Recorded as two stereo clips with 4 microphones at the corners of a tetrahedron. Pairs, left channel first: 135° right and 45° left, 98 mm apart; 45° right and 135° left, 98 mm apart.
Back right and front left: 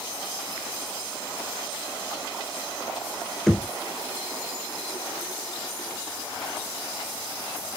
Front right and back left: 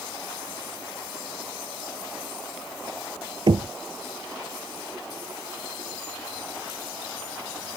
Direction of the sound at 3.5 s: 140° left.